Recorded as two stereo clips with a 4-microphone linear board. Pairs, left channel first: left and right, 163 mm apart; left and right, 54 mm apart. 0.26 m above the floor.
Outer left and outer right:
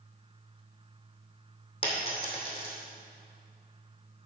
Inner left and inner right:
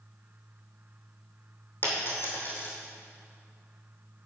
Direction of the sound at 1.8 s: 35° left (ahead or behind).